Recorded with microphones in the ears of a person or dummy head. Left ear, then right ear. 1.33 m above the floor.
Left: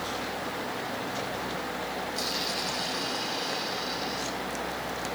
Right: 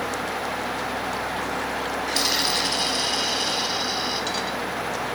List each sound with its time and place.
2.1 s a dropped coin: 50° right (ahead or behind), 5 m